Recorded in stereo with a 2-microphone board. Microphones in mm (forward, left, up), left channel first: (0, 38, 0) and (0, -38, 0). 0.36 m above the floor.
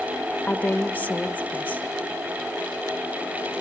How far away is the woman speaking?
About 0.8 m.